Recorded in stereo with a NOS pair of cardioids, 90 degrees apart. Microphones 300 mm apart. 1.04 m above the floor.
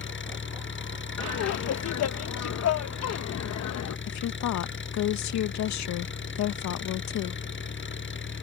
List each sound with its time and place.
0.0 s an engine running: 40° left
1.2 s laughter: 60° left
4.1 s a woman speaking: 65° left